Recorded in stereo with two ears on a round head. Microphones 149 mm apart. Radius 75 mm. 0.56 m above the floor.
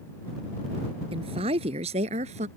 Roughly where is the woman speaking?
Right.